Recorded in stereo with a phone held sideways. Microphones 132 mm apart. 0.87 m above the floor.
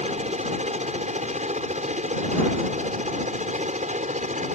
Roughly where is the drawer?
No drawer in this recording.